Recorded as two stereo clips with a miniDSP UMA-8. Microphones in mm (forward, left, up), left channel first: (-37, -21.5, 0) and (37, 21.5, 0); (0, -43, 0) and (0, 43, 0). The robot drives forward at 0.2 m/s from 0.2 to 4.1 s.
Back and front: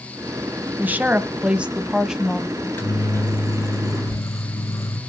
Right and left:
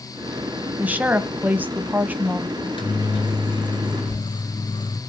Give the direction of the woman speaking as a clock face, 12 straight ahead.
10 o'clock.